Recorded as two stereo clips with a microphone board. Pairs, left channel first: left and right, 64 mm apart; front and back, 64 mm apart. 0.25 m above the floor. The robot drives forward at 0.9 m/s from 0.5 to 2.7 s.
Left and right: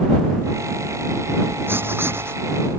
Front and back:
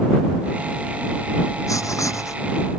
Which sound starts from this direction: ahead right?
Writing, at 1.7 s.